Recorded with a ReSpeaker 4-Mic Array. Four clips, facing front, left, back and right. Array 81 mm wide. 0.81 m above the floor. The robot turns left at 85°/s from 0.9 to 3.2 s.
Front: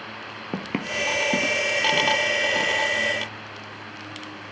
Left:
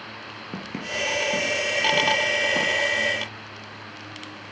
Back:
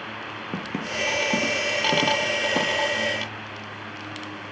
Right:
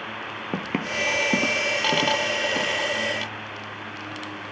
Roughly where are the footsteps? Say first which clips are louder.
Right 4 dB, front 2 dB; ahead right.